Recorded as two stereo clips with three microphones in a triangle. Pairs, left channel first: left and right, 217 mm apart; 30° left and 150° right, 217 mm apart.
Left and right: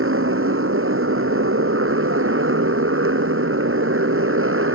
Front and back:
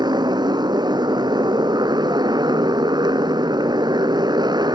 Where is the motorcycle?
80° right.